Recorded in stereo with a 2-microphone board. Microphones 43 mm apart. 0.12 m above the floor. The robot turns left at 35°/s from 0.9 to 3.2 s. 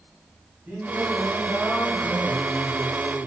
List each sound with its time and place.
0.7 s singing: 135° right, 7.5 m; by 3.3 s 145° left, 7.5 m